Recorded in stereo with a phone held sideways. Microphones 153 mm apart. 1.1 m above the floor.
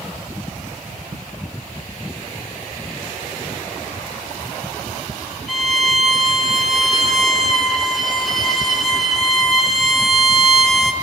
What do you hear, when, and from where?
5.5 s a violin: centre (ahead or behind), 4 m